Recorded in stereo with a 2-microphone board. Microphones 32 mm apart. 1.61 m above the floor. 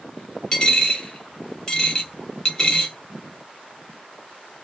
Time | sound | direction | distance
0.5 | a dropped coin | 25° left (ahead or behind) | 1.0 m